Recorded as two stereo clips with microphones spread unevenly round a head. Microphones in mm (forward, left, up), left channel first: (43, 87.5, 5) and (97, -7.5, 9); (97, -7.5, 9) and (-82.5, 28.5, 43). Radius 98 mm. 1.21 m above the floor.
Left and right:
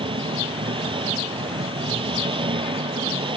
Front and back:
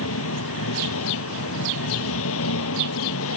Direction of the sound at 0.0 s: 20° right.